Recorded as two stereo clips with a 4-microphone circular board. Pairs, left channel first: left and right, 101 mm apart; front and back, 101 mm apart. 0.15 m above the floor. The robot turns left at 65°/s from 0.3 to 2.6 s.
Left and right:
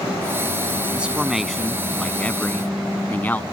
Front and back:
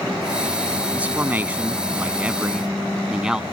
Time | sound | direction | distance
0.9 | a man speaking | 140° right | ?